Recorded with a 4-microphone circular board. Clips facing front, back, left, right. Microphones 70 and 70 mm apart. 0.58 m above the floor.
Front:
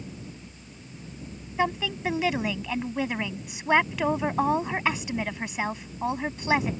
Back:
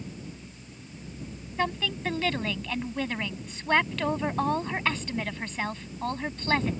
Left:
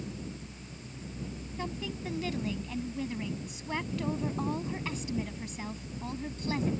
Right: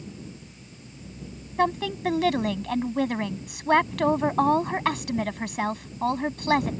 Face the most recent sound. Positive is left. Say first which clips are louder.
# front 2 dB, right 14 dB
turn(degrees=-80)